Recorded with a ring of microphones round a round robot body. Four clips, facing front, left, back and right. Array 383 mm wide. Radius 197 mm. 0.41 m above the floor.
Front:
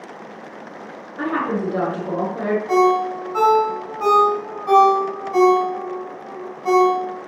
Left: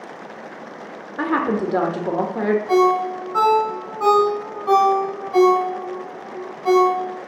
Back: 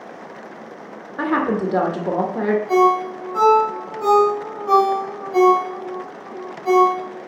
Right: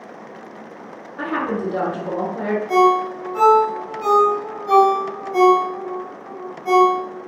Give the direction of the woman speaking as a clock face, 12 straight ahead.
8 o'clock.